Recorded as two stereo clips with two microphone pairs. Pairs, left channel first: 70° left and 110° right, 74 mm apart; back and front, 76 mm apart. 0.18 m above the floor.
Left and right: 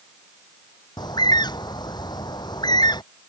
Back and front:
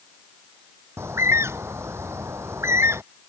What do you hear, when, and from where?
1.0 s a bird: 55° left